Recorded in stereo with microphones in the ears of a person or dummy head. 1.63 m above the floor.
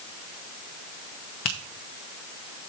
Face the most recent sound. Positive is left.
turn(degrees=25)  # may be behind; listen again after turning